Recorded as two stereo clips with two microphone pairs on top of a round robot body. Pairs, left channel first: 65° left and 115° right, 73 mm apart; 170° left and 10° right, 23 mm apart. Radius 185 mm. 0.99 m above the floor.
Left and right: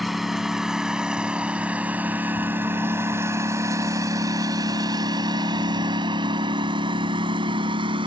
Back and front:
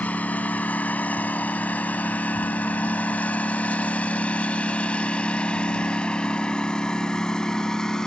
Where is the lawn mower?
160° left; by 8.1 s 120° right.